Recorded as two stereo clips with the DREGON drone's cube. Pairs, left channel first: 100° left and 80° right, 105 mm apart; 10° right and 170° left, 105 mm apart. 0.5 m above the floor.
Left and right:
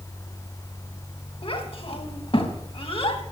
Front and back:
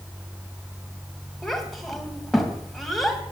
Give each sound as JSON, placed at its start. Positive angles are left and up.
{"t": 1.4, "sound": "a child speaking", "azimuth_deg": 80, "distance_m": 2.5}